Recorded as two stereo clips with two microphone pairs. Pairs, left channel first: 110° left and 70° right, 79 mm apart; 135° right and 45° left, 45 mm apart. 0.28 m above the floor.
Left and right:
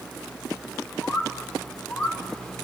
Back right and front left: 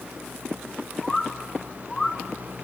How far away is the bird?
About 1.5 m.